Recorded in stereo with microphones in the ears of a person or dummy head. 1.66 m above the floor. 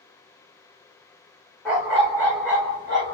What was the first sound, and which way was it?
A dog barking, centre (ahead or behind).